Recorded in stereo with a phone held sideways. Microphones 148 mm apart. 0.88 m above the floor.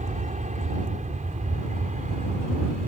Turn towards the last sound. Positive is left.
turn(degrees=-60)  # may be behind; listen again after turning